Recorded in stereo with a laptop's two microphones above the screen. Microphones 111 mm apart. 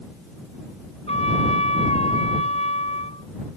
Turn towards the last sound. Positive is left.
turn(degrees=75)  # may be behind; listen again after turning